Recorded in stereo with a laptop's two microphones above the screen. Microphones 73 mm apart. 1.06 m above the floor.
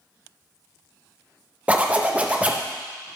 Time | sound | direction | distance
1.7 | a zipper | 20° right (ahead or behind) | 0.5 m